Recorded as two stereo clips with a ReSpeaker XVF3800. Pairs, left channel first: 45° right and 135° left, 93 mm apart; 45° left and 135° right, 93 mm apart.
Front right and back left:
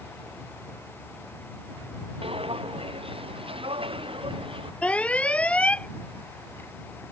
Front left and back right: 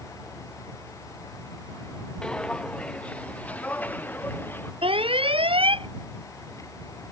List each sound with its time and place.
2.2 s footsteps: 125° left; by 4.7 s 115° left
4.8 s an alarm: 120° right